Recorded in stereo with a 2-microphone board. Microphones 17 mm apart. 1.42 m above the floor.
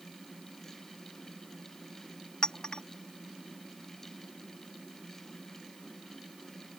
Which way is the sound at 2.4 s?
55° left (ahead or behind).